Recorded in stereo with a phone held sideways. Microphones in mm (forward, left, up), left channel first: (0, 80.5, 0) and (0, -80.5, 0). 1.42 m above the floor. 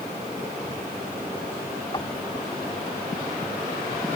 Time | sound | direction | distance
1.9 | knocking | 25° left (ahead or behind) | ?